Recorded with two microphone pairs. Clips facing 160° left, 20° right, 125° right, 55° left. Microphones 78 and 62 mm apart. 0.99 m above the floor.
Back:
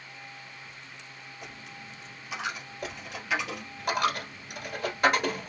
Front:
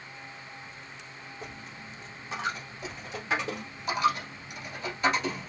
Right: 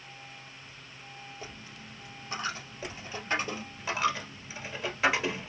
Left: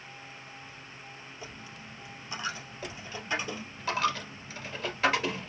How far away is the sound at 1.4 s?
About 2.0 m.